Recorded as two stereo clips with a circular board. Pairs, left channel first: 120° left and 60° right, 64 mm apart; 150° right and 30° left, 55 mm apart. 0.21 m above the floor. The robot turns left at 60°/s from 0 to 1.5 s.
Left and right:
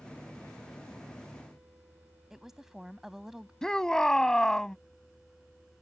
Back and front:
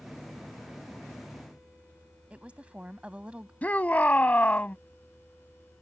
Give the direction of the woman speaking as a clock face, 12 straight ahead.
11 o'clock.